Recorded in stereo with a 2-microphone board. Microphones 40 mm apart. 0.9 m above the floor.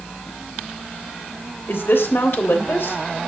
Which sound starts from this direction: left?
A woman speaking, at 1.7 s.